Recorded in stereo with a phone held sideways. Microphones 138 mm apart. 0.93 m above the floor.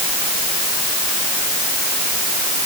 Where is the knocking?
I don't hear knocking.